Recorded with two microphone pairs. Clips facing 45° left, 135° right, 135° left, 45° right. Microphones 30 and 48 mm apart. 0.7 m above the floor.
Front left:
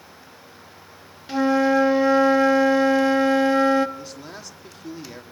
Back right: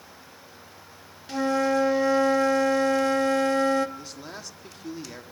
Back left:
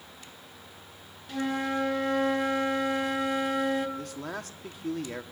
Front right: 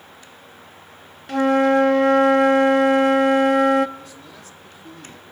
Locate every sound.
1.3 s a flute: 25° right, 0.6 m
4.0 s a man speaking: 135° left, 1.2 m